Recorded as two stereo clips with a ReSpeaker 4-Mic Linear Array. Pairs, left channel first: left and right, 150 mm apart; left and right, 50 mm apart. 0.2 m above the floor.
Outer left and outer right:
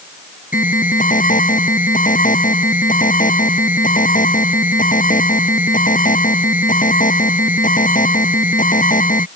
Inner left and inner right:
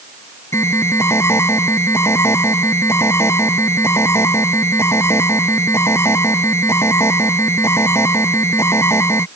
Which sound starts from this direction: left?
An alarm, at 0.5 s.